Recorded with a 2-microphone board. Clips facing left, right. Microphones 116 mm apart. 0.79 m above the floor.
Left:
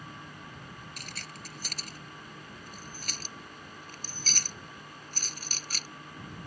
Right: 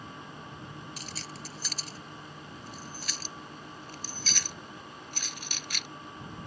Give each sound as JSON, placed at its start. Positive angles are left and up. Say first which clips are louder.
{"t": 1.0, "sound": "keys jangling", "louder": "right 3 dB", "side_deg": 60}